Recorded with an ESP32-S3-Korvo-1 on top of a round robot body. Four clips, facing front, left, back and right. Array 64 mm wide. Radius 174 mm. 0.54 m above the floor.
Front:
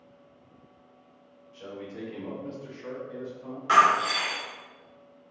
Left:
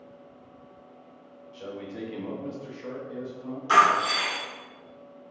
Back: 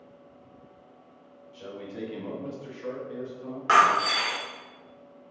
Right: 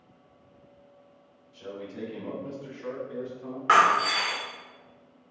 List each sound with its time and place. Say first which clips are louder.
1.5 s a man speaking: left 1 dB, back 1 dB; 100° left, 1.7 m; by 3.6 s 125° right, 1.7 m
3.7 s breaking glass: even, even; 120° right, 1.4 m